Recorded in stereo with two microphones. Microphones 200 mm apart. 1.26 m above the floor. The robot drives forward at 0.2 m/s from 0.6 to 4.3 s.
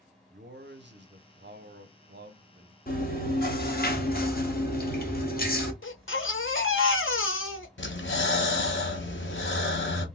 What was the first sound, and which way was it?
A man speaking, 60° right (ahead or behind).